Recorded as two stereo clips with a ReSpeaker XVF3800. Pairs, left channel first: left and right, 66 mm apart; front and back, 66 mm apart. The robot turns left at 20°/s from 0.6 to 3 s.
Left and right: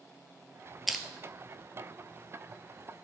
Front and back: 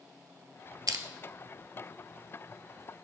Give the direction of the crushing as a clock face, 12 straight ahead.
6 o'clock.